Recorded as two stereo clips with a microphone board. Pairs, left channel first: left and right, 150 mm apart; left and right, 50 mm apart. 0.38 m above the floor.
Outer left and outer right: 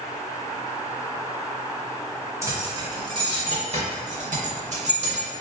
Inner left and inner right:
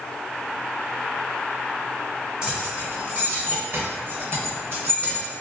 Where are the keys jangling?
20° right (ahead or behind), 1.2 m; by 5.3 s 45° right (ahead or behind), 1.1 m.